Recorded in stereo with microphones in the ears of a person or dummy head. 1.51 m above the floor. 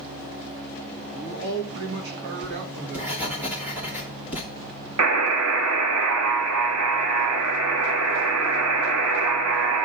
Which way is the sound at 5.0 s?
80° right.